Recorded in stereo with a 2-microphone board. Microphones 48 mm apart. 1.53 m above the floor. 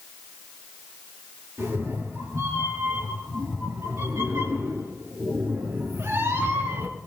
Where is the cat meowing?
80° right, 8.5 m; by 7.0 s 65° right (ahead or behind), 4.5 m.